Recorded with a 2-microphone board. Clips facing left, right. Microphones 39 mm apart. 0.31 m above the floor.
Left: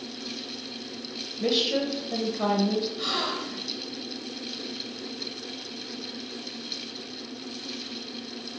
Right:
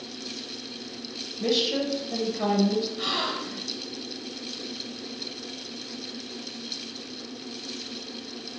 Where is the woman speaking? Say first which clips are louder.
Even; 10° left (ahead or behind), 1.1 m.